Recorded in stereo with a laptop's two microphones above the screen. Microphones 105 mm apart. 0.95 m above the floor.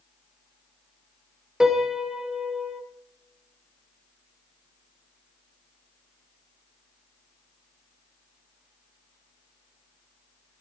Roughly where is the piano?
Centre.